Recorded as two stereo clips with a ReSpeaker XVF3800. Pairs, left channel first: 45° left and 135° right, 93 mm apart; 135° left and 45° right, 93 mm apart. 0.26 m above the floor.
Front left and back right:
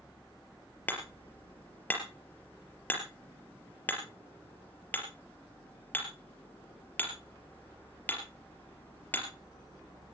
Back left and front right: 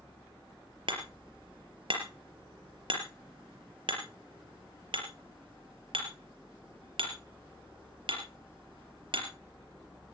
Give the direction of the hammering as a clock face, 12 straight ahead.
1 o'clock.